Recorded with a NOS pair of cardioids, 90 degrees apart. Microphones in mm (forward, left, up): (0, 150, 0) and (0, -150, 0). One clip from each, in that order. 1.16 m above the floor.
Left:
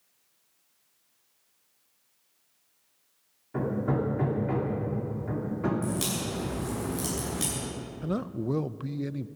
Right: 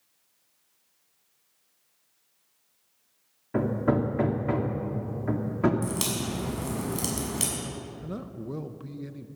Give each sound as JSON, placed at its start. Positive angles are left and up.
{"t": 3.5, "sound": "hammering", "azimuth_deg": -50, "distance_m": 2.5}
{"t": 5.8, "sound": "a crack", "azimuth_deg": -50, "distance_m": 6.5}
{"t": 8.0, "sound": "a man speaking", "azimuth_deg": 30, "distance_m": 0.6}